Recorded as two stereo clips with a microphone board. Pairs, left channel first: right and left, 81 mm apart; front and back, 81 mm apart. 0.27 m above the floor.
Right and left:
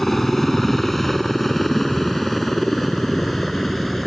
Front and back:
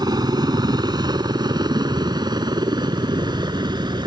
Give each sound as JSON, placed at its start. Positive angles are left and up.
{"t": 0.0, "sound": "a helicopter", "azimuth_deg": -175}